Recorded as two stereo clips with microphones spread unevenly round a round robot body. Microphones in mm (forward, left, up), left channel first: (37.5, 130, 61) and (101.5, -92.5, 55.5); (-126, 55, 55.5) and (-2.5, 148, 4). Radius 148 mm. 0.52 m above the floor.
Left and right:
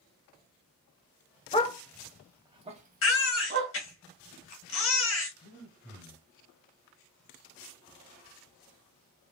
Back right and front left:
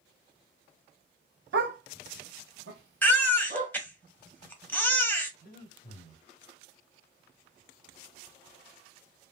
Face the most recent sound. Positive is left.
turn(degrees=-170)